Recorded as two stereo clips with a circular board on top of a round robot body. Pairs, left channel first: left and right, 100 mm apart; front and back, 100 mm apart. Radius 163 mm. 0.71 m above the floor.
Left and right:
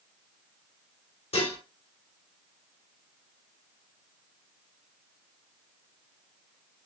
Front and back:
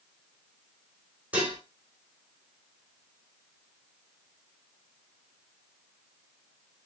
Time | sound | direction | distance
1.3 | dishes clattering | 105° left | 2.5 m